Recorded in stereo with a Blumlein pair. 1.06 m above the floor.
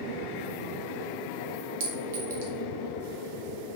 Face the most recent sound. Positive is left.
turn(degrees=-50)